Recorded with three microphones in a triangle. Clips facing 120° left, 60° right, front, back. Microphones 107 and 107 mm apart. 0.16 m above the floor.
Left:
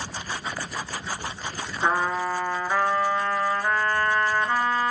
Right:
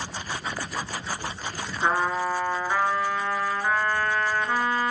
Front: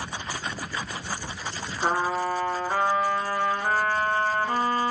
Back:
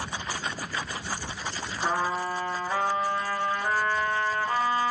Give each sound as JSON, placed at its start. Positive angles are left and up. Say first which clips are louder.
{"t": 1.8, "sound": "a trumpet", "louder": "even, front 3 dB", "azimuth_deg": 30, "distance_m": 1.2}